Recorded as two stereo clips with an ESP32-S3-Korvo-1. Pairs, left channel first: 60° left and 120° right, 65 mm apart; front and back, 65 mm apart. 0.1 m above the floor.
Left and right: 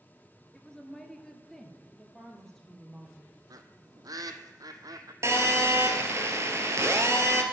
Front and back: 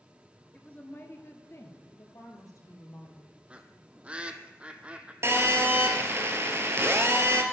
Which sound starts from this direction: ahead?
A woman speaking, at 0.5 s.